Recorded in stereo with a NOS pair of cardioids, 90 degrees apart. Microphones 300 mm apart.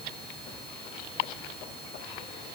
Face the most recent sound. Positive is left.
No sound to turn to.